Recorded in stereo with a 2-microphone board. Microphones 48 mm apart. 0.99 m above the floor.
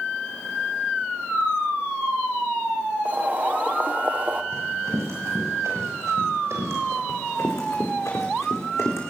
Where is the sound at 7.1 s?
80° left, 5.5 m; by 9.0 s 75° left (ahead or behind), 4.5 m.